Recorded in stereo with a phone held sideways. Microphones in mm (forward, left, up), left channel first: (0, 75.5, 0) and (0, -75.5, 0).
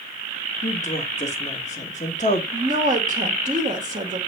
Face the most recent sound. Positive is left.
turn(degrees=-50)  # may be behind; listen again after turning